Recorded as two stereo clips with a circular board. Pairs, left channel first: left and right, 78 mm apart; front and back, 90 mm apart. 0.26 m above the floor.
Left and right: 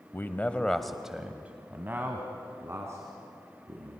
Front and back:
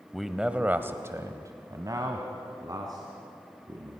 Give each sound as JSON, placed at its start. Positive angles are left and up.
{"t": 0.1, "sound": "a man speaking", "azimuth_deg": 90, "distance_m": 1.1}